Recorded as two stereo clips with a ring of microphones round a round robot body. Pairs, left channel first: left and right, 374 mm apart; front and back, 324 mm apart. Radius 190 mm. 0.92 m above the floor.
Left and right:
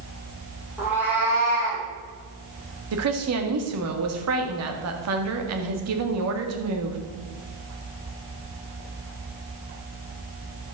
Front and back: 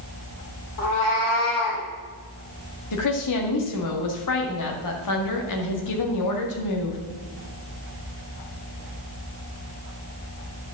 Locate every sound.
0.8 s a cat meowing: 5° right, 3.5 m
2.9 s a woman speaking: 40° right, 1.8 m